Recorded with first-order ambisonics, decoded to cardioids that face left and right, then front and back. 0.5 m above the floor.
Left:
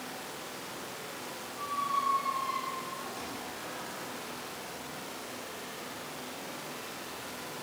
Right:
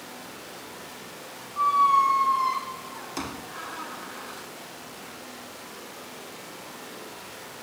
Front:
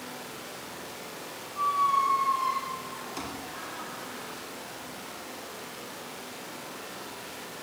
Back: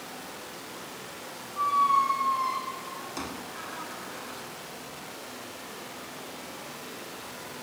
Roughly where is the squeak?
Right.